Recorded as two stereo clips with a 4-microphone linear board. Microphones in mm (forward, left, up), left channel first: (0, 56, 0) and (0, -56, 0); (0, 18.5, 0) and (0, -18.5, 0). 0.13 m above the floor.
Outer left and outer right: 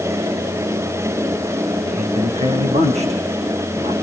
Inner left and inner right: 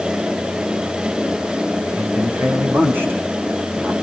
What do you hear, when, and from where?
1.9 s a man speaking: 80° right, 7 m